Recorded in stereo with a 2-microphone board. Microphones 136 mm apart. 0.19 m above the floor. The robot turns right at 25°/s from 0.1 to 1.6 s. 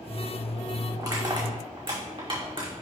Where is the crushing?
25° right (ahead or behind), 2.5 m; by 2.7 s 40° right (ahead or behind), 2.5 m.